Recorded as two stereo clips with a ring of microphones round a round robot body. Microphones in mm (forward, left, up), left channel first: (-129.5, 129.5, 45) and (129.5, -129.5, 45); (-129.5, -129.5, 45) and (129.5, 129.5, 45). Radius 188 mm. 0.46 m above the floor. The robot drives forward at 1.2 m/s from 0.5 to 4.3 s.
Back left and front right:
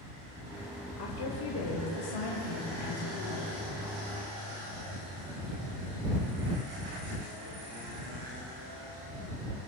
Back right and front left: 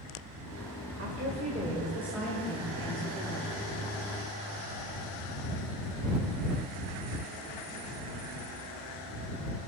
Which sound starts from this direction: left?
A woman speaking, at 1.0 s.